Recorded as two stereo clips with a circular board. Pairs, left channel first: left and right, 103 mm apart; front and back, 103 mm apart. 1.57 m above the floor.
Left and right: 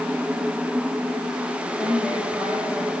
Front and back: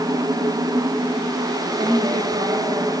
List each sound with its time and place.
1.6 s a woman speaking: 170° left, 9.5 m; by 2.9 s 175° left, 9.5 m